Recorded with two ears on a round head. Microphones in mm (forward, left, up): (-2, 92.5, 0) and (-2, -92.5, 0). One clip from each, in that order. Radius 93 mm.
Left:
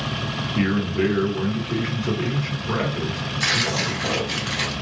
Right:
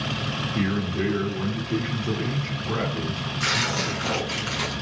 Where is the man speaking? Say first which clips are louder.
Left 7 dB; 20° left (ahead or behind), 0.9 m.